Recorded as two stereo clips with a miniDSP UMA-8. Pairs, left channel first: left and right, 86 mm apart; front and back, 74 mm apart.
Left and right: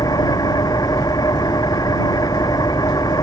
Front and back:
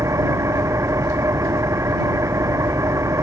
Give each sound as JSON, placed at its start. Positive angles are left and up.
{"t": 0.0, "sound": "an engine running", "azimuth_deg": 135}